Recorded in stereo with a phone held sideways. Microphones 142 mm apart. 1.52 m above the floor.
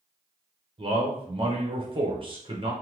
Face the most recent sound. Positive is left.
turn(degrees=-40)  # may be behind; listen again after turning